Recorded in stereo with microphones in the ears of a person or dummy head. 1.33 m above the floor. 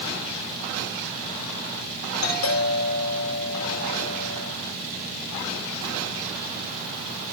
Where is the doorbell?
80° left, 8 m.